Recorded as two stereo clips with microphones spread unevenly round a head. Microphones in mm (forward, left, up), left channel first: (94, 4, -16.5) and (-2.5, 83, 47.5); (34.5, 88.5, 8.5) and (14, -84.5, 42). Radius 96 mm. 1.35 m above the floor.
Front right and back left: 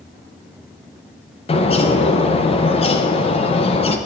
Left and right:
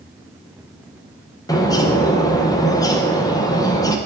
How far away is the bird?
About 0.9 m.